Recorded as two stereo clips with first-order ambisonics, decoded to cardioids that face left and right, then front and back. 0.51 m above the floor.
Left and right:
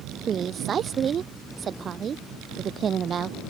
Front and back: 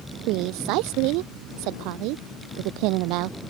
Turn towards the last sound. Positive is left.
turn(degrees=-155)